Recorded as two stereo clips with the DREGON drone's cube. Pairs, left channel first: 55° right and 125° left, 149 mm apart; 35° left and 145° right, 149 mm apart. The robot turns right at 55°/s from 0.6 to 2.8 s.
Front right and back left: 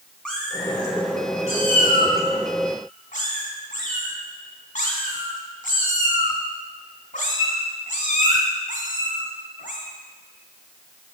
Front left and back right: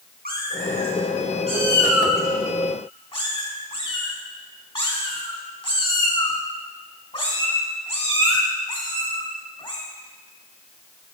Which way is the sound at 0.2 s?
140° right.